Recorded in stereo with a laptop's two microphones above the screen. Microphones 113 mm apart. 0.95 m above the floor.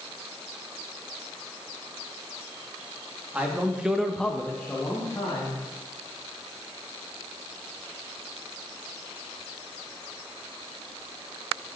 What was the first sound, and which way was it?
A man speaking, 10° right (ahead or behind).